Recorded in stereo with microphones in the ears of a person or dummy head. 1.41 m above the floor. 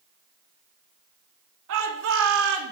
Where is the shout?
75° right (ahead or behind), 2.5 m; by 2.7 s 65° right (ahead or behind), 2 m.